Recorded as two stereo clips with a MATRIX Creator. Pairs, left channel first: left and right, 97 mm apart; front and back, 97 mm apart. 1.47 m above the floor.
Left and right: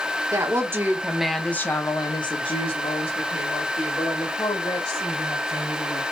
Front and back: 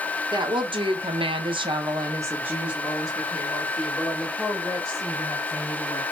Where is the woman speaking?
145° right, 1.0 m; by 6.0 s 80° left, 2.5 m.